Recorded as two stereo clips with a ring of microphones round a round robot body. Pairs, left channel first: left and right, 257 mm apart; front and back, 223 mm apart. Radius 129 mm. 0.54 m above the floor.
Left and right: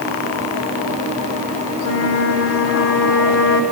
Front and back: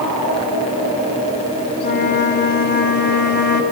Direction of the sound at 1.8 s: 45° left.